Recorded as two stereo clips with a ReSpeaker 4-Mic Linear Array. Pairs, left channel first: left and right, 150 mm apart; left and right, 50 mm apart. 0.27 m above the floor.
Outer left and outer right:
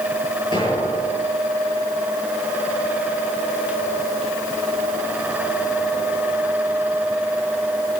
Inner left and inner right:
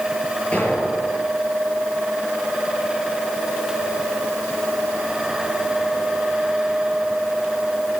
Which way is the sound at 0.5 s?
35° left (ahead or behind).